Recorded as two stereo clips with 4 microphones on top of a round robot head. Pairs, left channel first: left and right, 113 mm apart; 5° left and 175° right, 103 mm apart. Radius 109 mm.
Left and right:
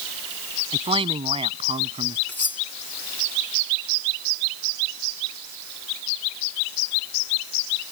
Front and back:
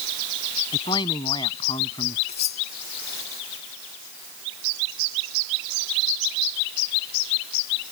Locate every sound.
0.7 s a man speaking: 45° right; by 2.2 s 50° right
2.3 s cutlery clinking: 15° left